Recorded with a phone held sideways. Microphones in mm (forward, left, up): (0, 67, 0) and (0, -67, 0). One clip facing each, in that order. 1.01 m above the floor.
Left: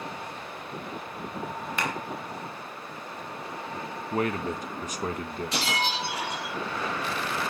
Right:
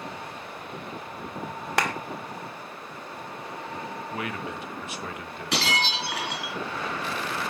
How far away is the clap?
About 1.8 m.